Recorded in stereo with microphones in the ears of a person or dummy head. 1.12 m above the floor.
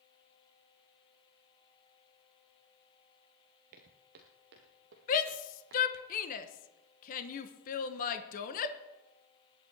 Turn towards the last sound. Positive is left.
turn(degrees=40)  # may be behind; listen again after turning